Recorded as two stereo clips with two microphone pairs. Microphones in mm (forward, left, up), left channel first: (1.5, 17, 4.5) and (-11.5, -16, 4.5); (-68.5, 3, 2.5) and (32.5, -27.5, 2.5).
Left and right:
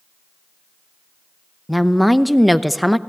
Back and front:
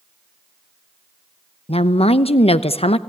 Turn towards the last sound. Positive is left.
turn(degrees=155)